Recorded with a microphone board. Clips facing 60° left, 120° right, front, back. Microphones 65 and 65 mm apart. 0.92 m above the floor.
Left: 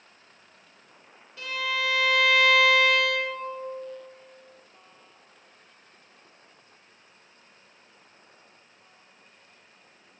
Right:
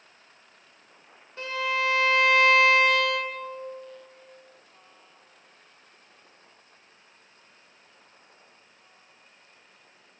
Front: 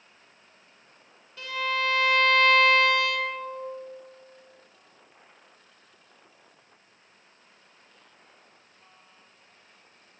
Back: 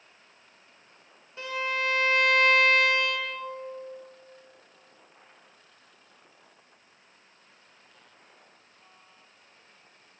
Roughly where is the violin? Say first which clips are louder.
Right 2 dB, front 2 dB; behind right.